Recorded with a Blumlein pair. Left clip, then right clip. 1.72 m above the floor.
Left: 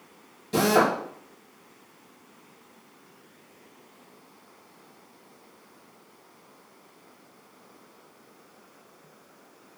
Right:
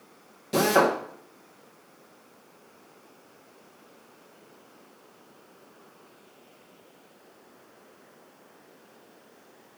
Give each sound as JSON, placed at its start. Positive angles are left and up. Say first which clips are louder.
{"t": 0.5, "sound": "a drill", "louder": "even", "azimuth_deg": -10, "distance_m": 1.4}